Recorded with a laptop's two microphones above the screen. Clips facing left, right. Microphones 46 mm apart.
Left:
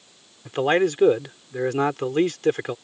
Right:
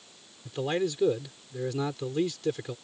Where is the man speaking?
60° left (ahead or behind).